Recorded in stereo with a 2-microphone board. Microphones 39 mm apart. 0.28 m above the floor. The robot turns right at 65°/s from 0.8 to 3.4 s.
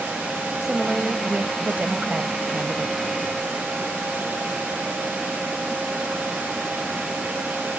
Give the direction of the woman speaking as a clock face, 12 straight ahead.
5 o'clock.